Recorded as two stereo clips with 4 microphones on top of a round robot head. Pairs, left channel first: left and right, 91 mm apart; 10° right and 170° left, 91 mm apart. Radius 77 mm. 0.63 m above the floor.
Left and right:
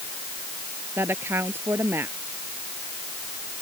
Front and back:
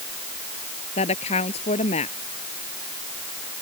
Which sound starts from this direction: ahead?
A woman speaking, at 1.0 s.